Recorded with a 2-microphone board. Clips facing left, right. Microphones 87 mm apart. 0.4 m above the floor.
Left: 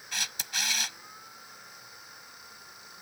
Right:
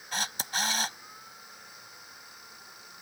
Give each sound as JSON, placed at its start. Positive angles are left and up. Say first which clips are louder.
{"t": 0.1, "sound": "a camera shutter", "louder": "right 5 dB", "side_deg": -35}